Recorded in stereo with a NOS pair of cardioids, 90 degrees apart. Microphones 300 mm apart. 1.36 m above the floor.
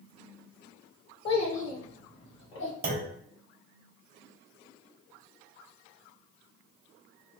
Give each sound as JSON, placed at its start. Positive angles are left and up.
{"t": 1.2, "sound": "a child speaking", "azimuth_deg": 35, "distance_m": 0.7}
{"t": 2.8, "sound": "a clunk", "azimuth_deg": -30, "distance_m": 0.8}